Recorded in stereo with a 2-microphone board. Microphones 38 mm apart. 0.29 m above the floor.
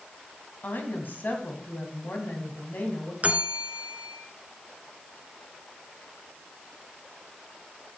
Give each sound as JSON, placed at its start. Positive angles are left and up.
{"t": 0.6, "sound": "a woman speaking", "side_deg": 55, "distance_m": 1.8}
{"t": 3.2, "sound": "a bell", "side_deg": -40, "distance_m": 0.7}